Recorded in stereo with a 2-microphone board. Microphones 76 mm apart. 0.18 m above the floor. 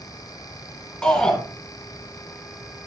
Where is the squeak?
No squeak in this recording.